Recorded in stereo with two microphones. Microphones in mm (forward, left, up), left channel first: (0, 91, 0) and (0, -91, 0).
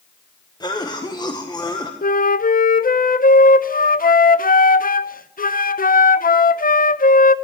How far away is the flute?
About 0.5 m.